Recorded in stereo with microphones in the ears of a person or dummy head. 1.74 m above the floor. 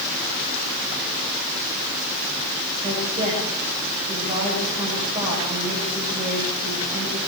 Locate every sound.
2.8 s a woman speaking: 25° right (ahead or behind), 10 m